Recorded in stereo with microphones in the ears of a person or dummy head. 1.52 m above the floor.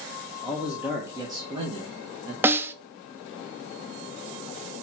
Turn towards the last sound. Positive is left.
turn(degrees=-10)  # may be behind; listen again after turning